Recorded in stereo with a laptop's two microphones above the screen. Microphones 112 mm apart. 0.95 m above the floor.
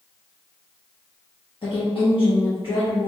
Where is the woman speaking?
55° left (ahead or behind), 0.9 m.